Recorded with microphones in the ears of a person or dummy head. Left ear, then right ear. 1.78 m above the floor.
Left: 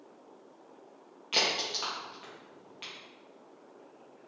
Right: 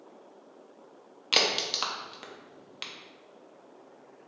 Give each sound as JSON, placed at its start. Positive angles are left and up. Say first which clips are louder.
{"t": 1.3, "sound": "a crack", "louder": "right 3 dB", "side_deg": -35, "distance_m": 0.7}